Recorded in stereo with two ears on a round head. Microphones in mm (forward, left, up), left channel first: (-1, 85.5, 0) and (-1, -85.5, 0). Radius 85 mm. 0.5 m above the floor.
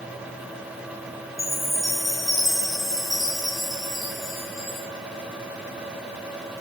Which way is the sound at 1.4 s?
Centre (ahead or behind).